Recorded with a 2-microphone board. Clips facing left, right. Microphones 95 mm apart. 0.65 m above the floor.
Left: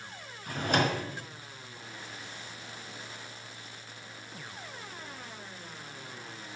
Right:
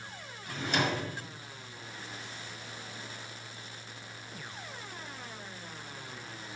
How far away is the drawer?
About 0.9 m.